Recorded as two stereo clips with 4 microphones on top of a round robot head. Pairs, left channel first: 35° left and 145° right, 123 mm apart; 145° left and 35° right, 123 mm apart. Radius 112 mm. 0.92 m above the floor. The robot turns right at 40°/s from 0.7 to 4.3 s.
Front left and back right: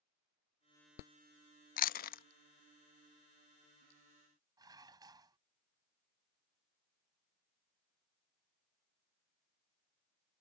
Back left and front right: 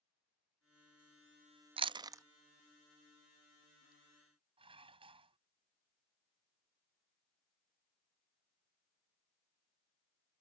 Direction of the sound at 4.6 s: 85° right.